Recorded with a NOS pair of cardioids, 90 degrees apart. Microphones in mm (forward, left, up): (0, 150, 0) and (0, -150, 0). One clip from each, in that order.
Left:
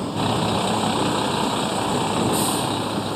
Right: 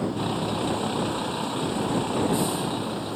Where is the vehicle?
55° left; by 3.2 s 50° left.